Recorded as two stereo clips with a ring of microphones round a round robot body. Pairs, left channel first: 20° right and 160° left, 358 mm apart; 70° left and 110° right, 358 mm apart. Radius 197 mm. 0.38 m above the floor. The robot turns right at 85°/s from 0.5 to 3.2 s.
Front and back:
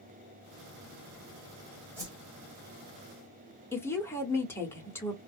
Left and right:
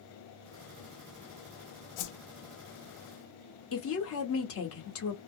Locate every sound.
2.0 s a whoosh: 70° left, 0.8 m; by 2.1 s 90° left, 0.8 m
3.7 s a woman speaking: 55° left, 1.3 m